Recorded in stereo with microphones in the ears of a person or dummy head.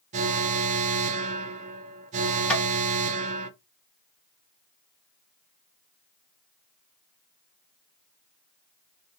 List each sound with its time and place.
0.1 s an alarm: 45° right (ahead or behind), 0.7 m
2.5 s tapping: centre (ahead or behind), 1.7 m